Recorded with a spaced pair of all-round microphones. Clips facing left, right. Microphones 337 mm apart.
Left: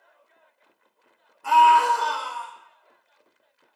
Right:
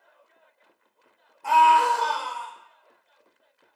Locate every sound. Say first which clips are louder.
1.4 s a scream: left 1 dB; 15° left (ahead or behind), 0.9 m